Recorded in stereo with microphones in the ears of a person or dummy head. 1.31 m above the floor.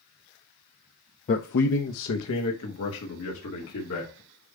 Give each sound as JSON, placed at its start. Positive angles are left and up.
{"t": 1.3, "sound": "a man speaking", "side_deg": 40, "distance_m": 0.6}